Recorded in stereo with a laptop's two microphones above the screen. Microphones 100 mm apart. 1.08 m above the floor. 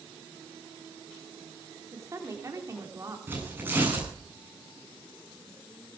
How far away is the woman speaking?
About 3.5 m.